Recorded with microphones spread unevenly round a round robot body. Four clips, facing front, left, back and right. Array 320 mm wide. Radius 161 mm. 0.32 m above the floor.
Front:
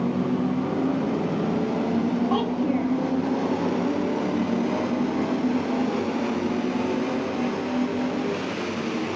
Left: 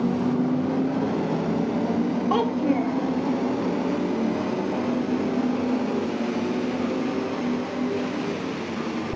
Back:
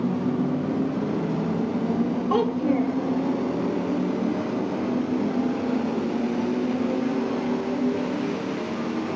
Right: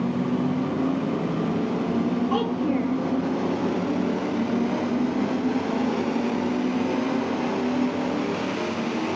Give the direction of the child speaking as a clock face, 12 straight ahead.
10 o'clock.